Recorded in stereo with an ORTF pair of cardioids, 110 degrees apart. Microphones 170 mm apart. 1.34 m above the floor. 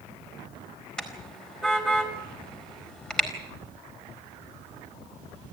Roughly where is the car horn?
Ahead.